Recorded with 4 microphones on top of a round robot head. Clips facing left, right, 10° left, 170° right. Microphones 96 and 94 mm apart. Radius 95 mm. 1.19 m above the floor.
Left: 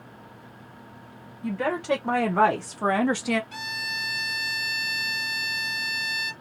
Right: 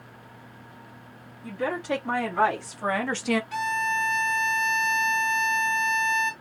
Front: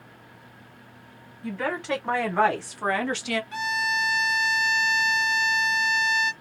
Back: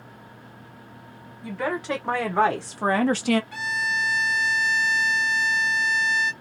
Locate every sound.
1.4 s a woman speaking: 110° left, 1.8 m; by 3.4 s 165° right, 0.6 m
3.5 s a violin: 55° right, 1.2 m